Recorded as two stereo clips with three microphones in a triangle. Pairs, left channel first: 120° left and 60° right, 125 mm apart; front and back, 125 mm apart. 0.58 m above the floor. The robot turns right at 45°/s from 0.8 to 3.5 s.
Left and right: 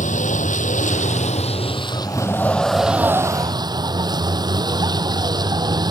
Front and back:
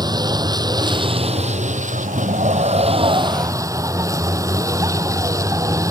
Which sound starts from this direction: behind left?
A vehicle, at 0.0 s.